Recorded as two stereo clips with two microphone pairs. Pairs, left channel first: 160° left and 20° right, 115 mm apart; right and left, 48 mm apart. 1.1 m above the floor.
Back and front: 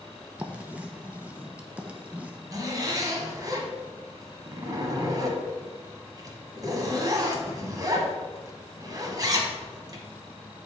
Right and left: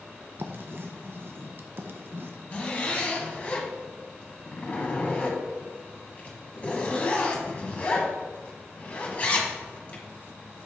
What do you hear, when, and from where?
0.4 s writing: 65° left, 0.6 m
2.5 s a zipper: 50° right, 1.2 m